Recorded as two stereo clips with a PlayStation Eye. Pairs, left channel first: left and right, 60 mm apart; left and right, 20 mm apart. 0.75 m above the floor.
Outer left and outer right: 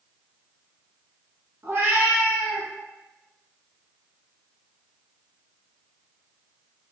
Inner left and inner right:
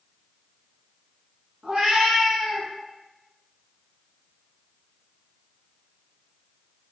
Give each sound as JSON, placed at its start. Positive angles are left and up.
{"t": 1.6, "sound": "a cat meowing", "side_deg": -50, "distance_m": 1.2}